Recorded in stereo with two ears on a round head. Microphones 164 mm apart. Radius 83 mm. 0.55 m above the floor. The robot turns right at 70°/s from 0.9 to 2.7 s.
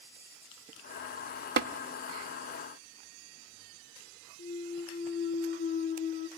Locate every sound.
1.6 s tapping: 55° right (ahead or behind), 0.7 m; by 1.7 s 50° right (ahead or behind), 0.7 m
4.4 s a clunk: 60° left (ahead or behind), 1.0 m